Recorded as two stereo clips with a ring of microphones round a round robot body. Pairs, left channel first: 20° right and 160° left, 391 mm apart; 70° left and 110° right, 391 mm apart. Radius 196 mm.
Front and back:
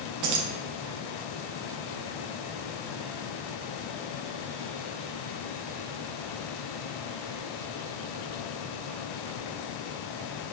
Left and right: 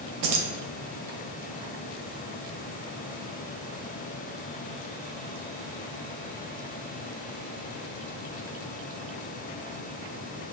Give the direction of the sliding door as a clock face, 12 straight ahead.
No sliding door in this recording.